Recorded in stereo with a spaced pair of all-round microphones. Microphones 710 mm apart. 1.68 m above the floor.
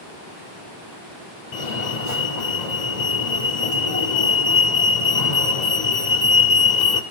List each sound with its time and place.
1.5 s a fire alarm: 70° left (ahead or behind), 1.6 m